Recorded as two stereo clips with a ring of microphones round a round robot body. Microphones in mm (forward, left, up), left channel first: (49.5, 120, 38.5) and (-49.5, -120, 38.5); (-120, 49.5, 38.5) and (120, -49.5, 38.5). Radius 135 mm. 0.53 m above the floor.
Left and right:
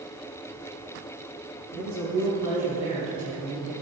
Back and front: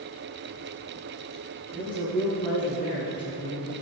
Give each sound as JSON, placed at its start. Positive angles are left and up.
{"t": 1.7, "sound": "a woman speaking", "azimuth_deg": -130, "distance_m": 5.0}